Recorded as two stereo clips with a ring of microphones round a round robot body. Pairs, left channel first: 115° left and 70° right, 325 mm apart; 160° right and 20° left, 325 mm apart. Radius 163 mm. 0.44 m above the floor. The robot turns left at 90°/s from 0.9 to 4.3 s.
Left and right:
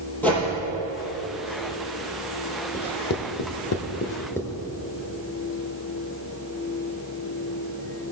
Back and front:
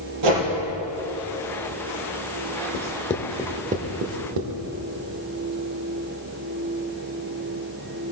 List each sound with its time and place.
0.2 s a whoosh: 25° left, 4 m
2.7 s writing: 170° left, 0.9 m; by 4.6 s 30° left, 0.9 m